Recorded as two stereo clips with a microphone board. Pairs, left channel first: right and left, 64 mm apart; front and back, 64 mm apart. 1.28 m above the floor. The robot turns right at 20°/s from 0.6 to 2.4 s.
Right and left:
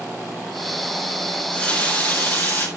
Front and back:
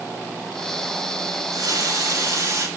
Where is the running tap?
165° right, 4 m; by 2.7 s 145° right, 4 m.